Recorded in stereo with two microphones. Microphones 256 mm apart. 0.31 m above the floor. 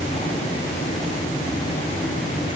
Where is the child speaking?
I don't hear a child speaking.